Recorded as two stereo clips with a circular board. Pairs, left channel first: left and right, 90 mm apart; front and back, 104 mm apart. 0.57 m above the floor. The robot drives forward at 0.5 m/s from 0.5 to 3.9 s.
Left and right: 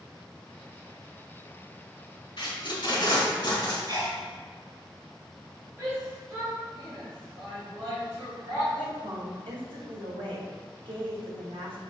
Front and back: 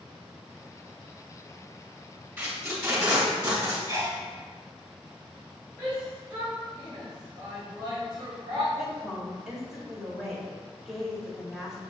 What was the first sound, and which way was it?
Tape being pulled, 115° left.